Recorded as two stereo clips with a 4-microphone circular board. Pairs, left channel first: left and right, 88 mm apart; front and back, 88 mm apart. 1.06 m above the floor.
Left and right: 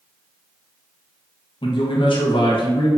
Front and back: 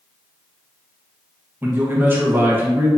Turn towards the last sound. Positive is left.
turn(degrees=110)